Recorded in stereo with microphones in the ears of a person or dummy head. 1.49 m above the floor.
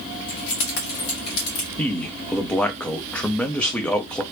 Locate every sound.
0.3 s keys jangling: 65° left (ahead or behind), 1.2 m
1.8 s a man speaking: 10° left (ahead or behind), 0.6 m